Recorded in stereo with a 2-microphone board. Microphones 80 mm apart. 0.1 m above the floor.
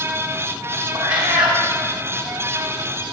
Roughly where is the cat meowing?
Right.